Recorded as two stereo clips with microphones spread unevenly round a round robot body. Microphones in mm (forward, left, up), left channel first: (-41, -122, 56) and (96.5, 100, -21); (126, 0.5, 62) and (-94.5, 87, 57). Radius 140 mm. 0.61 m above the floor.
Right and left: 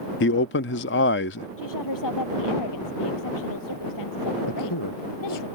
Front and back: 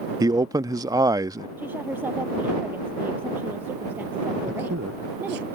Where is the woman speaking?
120° right.